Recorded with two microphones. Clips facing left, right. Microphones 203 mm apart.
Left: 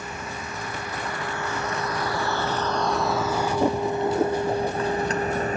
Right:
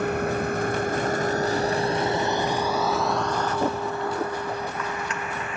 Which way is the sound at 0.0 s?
60° right (ahead or behind).